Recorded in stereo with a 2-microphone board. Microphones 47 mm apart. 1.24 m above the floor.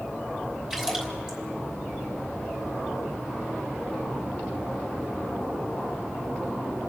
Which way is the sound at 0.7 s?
20° right (ahead or behind).